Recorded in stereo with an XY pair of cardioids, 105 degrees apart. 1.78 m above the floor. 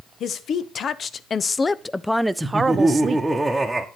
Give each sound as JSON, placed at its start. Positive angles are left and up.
{"t": 0.2, "sound": "a woman speaking", "azimuth_deg": 60, "distance_m": 1.2}
{"t": 2.4, "sound": "laughter", "azimuth_deg": -10, "distance_m": 1.2}